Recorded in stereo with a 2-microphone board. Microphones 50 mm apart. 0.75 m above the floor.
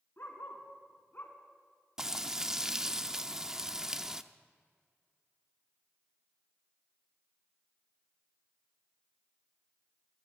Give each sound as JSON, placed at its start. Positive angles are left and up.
{"t": 0.2, "sound": "a dog barking", "side_deg": 50, "distance_m": 3.5}
{"t": 2.0, "sound": "frying", "side_deg": -15, "distance_m": 0.7}